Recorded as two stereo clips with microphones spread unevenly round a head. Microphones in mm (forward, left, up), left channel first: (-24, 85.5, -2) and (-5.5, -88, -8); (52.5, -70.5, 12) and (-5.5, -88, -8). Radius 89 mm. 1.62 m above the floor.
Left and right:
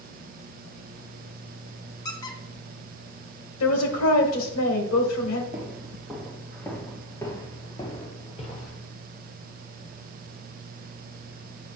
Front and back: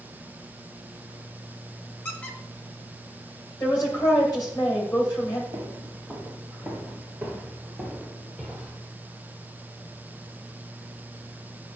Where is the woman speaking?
85° left, 1.8 m.